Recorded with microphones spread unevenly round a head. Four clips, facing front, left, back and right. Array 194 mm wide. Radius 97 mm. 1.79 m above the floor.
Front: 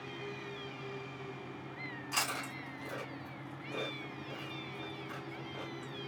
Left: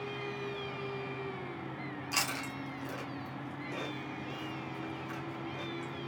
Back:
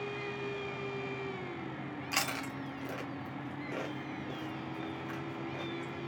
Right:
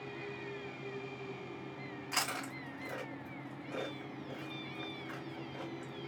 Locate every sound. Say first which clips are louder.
2.1 s chewing: left 1 dB, back 1 dB; 170° left, 0.9 m